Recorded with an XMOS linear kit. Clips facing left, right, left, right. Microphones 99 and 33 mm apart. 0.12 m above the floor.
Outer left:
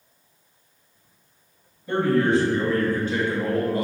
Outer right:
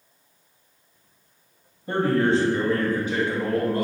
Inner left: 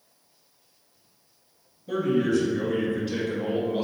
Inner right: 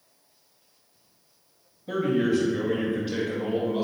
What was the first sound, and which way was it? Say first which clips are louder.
A man speaking: outer left 1 dB, even; 40° right (ahead or behind).